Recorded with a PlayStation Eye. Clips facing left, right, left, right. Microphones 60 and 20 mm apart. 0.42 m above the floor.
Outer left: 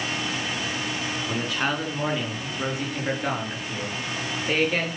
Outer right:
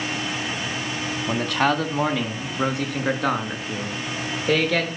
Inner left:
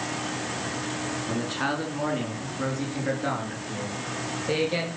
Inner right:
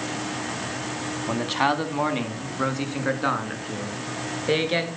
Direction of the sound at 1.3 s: 65° right (ahead or behind).